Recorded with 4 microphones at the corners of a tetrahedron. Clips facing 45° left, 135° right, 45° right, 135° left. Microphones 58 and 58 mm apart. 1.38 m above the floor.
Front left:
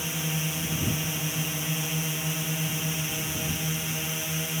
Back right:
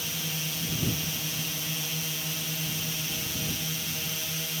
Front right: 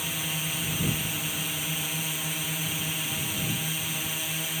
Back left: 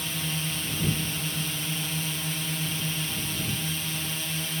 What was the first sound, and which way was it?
A drone, 20° left.